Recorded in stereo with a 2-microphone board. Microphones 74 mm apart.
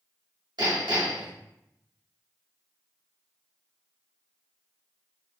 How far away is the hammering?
About 1.7 m.